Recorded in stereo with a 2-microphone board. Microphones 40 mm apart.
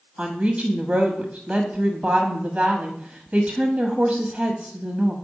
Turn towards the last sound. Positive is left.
turn(degrees=-30)  # may be behind; listen again after turning